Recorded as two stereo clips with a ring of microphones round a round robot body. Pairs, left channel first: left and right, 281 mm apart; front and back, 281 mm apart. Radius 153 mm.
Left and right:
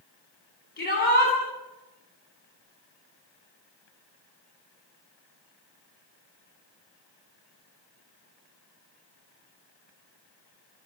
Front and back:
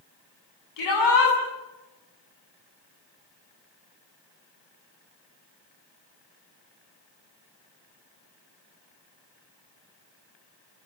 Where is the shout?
30° left, 9 m.